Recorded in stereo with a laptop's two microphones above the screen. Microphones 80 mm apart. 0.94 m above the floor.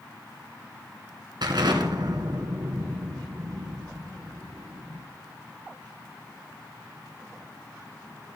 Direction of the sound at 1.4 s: 70° right (ahead or behind).